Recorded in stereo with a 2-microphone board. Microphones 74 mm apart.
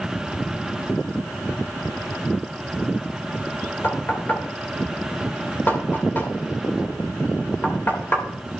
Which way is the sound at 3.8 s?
25° left (ahead or behind).